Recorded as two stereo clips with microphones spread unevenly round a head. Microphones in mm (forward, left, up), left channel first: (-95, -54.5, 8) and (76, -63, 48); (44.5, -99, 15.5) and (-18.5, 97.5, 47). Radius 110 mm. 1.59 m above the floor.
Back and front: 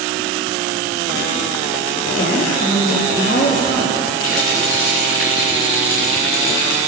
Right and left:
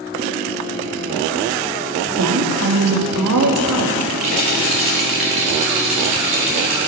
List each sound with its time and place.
2.2 s a woman speaking: 125° left, 2.5 m
4.2 s a rattle: 165° left, 4.5 m